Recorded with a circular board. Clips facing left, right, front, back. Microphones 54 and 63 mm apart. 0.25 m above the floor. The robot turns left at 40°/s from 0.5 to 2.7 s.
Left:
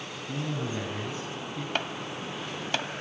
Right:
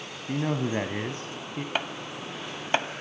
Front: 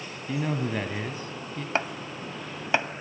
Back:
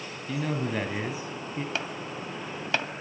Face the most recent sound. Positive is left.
turn(degrees=-55)